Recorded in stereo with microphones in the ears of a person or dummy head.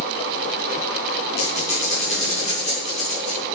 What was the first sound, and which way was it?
A squeak, 35° left (ahead or behind).